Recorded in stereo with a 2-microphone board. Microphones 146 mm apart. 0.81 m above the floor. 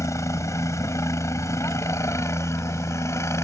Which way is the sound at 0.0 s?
20° left (ahead or behind).